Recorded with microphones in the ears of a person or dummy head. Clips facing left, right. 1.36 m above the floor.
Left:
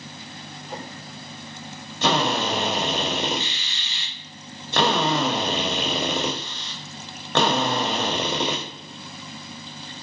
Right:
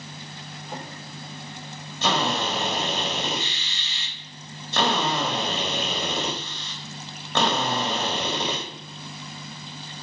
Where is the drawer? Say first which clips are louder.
Left 1 dB; 60° right (ahead or behind), 0.9 m.